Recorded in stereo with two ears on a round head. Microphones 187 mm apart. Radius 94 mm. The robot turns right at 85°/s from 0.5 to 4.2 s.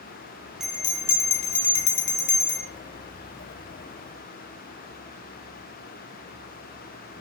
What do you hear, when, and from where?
0.6 s a bell: straight ahead, 2.0 m; by 2.7 s 175° left, 2.0 m